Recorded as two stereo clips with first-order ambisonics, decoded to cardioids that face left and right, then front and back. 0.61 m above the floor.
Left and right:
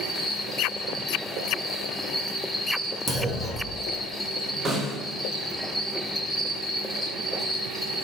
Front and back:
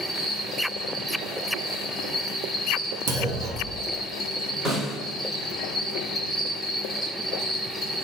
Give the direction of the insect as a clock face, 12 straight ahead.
10 o'clock.